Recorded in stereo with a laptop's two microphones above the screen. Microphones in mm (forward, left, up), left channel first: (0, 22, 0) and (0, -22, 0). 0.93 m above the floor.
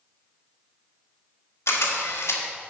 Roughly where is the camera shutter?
Left.